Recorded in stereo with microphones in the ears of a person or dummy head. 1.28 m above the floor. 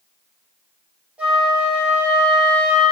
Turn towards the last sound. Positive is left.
turn(degrees=-10)  # may be behind; listen again after turning